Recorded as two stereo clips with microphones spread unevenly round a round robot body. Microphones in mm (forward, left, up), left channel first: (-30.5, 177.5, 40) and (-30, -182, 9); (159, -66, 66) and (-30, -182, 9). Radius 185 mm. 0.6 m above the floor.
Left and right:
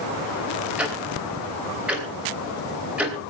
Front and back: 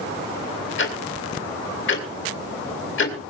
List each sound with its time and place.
0.8 s ticking: 5° right, 3 m